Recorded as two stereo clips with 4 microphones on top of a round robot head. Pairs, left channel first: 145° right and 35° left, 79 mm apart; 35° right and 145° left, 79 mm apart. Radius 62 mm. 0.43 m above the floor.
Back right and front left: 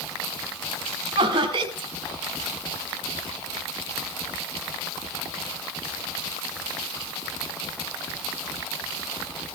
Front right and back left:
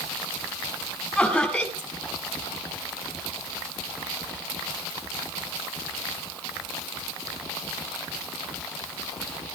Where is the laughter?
45° left, 3.5 m.